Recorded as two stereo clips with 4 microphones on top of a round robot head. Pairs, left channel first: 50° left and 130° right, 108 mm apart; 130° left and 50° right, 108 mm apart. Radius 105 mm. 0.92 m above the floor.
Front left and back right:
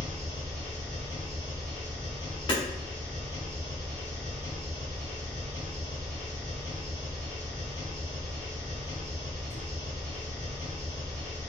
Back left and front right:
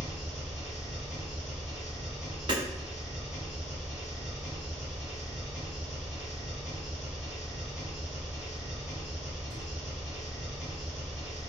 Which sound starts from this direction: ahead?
Hammering, at 2.5 s.